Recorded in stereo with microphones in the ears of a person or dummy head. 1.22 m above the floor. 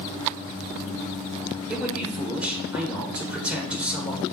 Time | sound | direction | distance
1.7 | a man speaking | 5° right (ahead or behind) | 1.9 m